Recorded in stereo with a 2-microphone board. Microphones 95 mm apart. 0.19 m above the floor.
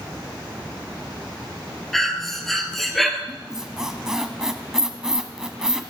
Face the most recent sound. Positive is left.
turn(degrees=-5)  # may be behind; listen again after turning